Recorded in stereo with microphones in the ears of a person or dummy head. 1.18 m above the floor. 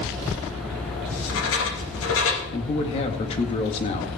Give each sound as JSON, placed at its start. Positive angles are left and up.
{"t": 1.1, "sound": "writing", "side_deg": 75, "distance_m": 2.0}
{"t": 2.5, "sound": "a man speaking", "side_deg": 40, "distance_m": 1.8}